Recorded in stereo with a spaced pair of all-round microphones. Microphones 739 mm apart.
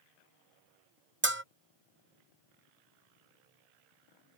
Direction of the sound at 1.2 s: 15° right (ahead or behind).